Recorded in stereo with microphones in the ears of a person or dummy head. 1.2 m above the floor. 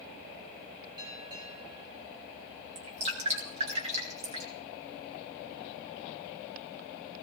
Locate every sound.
1.0 s a bell: 25° right (ahead or behind), 5.5 m
2.8 s dripping: 30° right (ahead or behind), 3 m